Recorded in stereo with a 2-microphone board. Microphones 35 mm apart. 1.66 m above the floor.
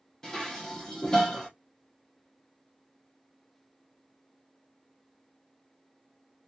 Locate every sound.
0.2 s dishes clattering: 15° left (ahead or behind), 0.7 m